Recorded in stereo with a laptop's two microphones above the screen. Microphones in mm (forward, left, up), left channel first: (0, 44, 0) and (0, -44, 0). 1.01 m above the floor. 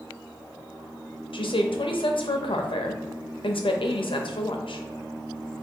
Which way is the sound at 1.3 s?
80° left.